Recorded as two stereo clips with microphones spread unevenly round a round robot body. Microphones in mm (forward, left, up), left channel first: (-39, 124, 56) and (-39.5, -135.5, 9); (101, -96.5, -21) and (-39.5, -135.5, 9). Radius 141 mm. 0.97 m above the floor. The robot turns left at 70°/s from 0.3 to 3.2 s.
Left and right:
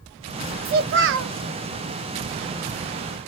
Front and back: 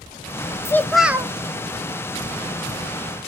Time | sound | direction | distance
0.7 | a child speaking | 45° right | 0.6 m